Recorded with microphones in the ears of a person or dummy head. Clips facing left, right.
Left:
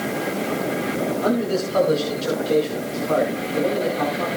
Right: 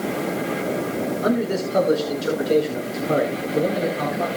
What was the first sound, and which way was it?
A man speaking, 15° right (ahead or behind).